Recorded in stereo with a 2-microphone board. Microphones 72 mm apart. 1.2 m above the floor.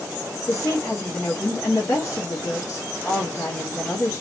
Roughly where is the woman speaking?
Left.